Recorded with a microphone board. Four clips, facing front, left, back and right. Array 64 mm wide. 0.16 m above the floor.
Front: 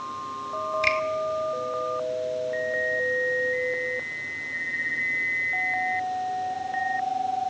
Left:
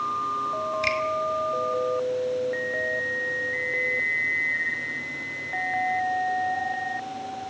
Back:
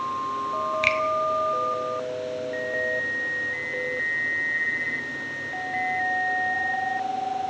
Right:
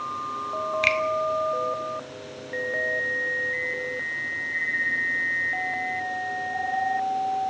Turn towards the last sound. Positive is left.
turn(degrees=-135)